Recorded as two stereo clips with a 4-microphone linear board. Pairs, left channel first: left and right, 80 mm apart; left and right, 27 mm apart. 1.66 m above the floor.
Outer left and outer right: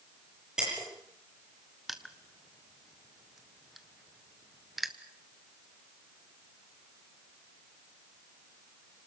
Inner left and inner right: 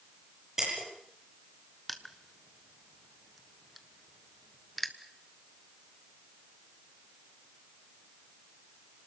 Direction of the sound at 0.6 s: 10° right (ahead or behind).